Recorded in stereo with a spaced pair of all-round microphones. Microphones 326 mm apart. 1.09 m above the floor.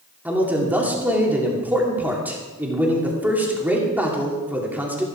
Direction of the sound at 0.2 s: 5° right (ahead or behind).